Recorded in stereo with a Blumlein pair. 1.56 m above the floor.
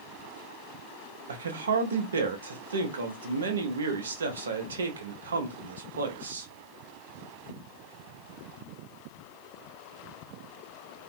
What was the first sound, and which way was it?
A man speaking, 65° right.